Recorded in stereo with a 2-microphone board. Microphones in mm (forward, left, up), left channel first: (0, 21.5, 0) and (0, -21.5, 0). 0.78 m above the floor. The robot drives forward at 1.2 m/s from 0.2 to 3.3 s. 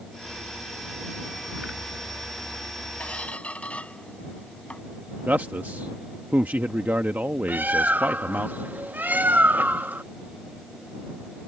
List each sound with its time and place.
3.0 s a squeak: 35° left (ahead or behind); by 4.8 s 30° left (ahead or behind)
5.3 s a man speaking: 45° right (ahead or behind)
7.5 s a bird: 45° right (ahead or behind)